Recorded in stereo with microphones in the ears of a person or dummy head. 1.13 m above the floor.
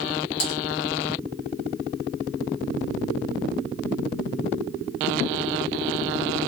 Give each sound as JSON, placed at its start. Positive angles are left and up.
{"t": 0.4, "sound": "typing on a keyboard", "side_deg": 70, "distance_m": 1.6}